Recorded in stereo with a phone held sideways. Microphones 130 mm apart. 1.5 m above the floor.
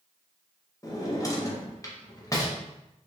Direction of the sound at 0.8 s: 25° left (ahead or behind).